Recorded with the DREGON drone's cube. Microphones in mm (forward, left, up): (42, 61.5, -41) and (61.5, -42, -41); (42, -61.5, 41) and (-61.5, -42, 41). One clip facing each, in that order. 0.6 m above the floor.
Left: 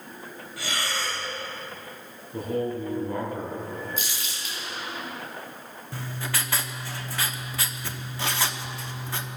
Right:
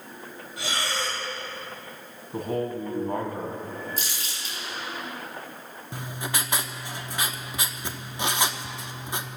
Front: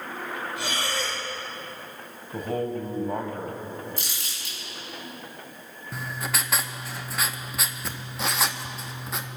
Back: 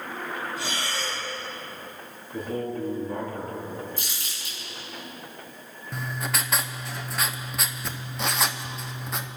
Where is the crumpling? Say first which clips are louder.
Even, even; 25° right, 7 m.